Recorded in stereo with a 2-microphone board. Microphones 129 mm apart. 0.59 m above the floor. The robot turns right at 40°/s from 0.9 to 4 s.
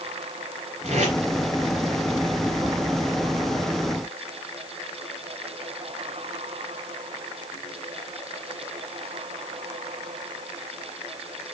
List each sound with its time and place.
0.8 s tape being pulled: 60° right (ahead or behind), 2.5 m; by 1.2 s 70° right (ahead or behind), 2.5 m